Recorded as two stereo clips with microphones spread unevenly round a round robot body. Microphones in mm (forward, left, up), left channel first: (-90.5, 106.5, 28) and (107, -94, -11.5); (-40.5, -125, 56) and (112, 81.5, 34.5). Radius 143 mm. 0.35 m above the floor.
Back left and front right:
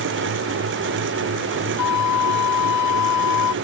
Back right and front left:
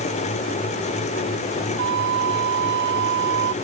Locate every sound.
1.8 s a flute: 105° left